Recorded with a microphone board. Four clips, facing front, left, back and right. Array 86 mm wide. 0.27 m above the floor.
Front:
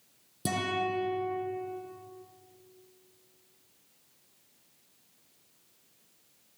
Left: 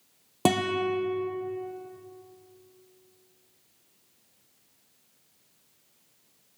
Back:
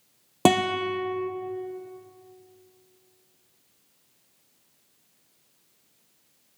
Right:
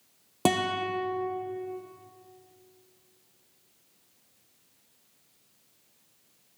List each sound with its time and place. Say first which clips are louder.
0.5 s a guitar: left 2 dB, back 9 dB; straight behind, 1.6 m